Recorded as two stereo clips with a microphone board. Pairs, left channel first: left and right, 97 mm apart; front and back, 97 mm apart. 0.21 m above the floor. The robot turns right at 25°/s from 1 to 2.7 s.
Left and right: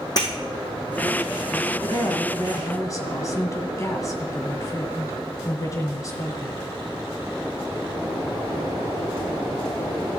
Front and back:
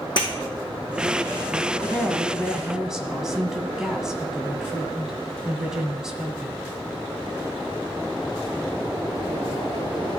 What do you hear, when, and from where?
0.2 s breaking glass: 40° left, 3 m
1.8 s a woman speaking: 75° left, 1.8 m; by 6.6 s 100° left, 1.8 m